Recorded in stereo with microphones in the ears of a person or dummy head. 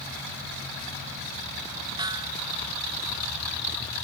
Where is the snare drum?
15° right (ahead or behind).